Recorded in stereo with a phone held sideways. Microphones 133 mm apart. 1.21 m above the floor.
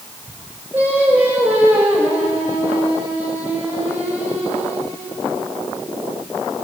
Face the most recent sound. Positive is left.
turn(degrees=-15)  # may be behind; listen again after turning